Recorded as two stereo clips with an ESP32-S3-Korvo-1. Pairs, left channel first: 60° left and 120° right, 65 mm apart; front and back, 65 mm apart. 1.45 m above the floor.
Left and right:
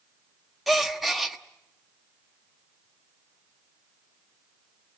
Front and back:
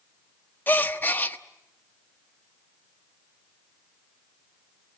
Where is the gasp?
35° right, 1.0 m.